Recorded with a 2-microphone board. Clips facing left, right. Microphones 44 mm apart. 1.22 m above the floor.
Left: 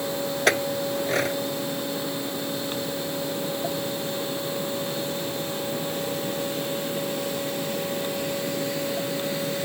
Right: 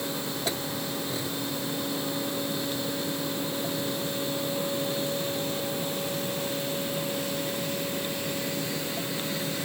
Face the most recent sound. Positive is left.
turn(degrees=65)  # may be behind; listen again after turning